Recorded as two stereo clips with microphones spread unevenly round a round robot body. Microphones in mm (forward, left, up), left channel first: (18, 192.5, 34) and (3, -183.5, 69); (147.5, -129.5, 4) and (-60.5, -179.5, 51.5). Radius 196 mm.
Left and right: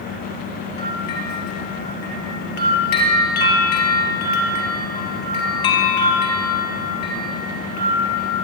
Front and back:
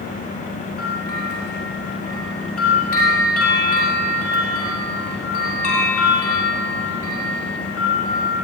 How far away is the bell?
About 3.5 m.